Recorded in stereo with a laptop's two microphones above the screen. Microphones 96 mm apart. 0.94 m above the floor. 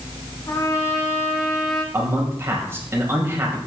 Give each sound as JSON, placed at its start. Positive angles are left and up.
{"t": 0.5, "sound": "a trumpet", "side_deg": 40, "distance_m": 2.5}
{"t": 1.9, "sound": "a man speaking", "side_deg": -25, "distance_m": 5.5}